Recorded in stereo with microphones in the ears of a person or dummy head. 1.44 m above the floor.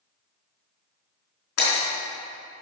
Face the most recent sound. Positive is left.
turn(degrees=55)  # may be behind; listen again after turning